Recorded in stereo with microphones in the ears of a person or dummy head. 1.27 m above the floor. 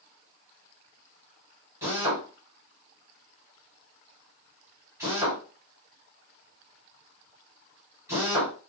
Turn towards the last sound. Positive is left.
turn(degrees=-20)  # may be behind; listen again after turning